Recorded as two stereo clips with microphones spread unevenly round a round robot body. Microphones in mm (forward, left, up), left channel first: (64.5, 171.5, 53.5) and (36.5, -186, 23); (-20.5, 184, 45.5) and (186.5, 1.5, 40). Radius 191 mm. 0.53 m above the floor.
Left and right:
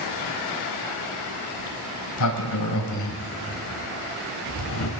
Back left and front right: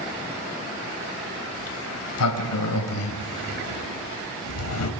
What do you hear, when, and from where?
1.6 s a sliding door: 130° left, 3.5 m